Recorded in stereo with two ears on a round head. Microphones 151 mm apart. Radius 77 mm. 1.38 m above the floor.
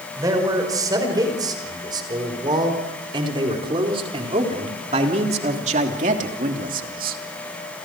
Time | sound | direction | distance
0.2 | a man speaking | 20° right (ahead or behind) | 5.5 m